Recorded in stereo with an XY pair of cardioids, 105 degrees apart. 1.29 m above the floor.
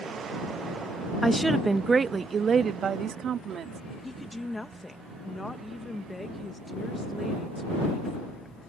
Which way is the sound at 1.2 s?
5° left.